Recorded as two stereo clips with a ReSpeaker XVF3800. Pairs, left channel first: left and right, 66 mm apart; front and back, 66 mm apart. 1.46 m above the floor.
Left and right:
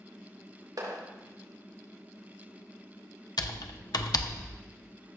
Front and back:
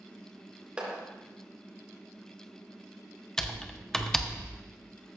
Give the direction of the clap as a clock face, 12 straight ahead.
4 o'clock.